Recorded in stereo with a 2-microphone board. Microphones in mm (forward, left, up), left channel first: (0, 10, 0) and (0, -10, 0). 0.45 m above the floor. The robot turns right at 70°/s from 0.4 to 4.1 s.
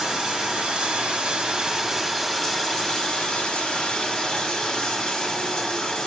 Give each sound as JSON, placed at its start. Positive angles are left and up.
{"t": 0.0, "sound": "running water", "azimuth_deg": -115, "distance_m": 2.5}